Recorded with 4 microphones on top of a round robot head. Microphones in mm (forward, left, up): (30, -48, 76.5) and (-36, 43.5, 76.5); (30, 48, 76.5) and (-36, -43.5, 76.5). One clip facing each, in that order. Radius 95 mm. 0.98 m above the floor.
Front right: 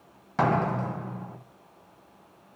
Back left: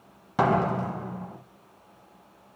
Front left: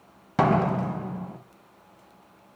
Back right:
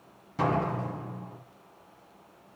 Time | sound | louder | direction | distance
0.4 | a door slam | back left 2 dB, front left 6 dB | 50° left | 0.7 m